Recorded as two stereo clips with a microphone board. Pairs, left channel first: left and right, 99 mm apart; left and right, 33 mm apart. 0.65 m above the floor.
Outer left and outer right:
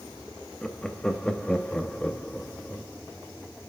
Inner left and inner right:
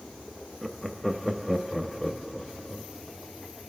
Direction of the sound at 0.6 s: 10° left (ahead or behind).